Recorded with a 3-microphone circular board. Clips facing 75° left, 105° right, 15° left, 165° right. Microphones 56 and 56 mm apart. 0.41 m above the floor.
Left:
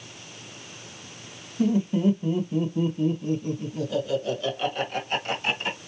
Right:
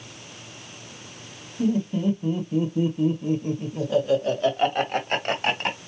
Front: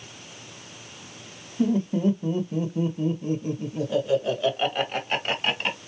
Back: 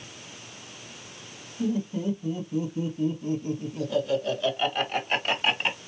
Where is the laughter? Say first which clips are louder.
Left 1 dB, front 5 dB; 5° left, 1.6 m; by 5.8 s 80° right, 2 m.